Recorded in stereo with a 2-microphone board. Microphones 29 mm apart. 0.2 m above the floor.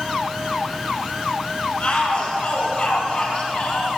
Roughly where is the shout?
Left.